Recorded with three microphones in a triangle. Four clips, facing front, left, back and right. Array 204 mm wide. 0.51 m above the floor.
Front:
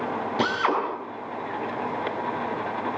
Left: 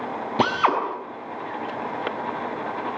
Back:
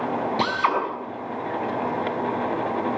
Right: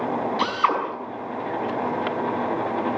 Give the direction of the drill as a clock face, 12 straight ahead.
9 o'clock.